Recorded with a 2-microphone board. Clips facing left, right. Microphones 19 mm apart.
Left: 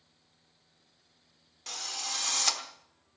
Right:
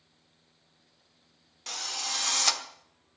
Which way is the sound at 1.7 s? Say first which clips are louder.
Right 3 dB; 5° right (ahead or behind).